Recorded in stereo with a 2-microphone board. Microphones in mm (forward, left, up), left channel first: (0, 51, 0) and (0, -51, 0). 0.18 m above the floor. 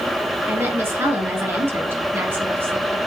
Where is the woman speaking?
25° right (ahead or behind), 2 m.